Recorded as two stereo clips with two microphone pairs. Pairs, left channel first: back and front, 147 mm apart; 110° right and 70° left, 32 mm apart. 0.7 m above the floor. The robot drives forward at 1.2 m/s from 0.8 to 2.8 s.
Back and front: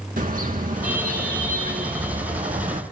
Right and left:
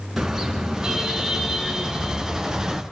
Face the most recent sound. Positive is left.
turn(degrees=-25)